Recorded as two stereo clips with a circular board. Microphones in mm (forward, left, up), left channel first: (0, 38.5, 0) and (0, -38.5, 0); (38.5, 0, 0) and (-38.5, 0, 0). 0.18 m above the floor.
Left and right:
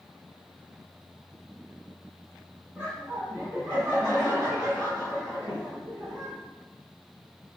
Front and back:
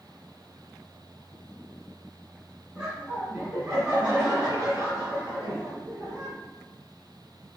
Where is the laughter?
120° right, 1.7 m; by 6.4 s 155° right, 3.5 m.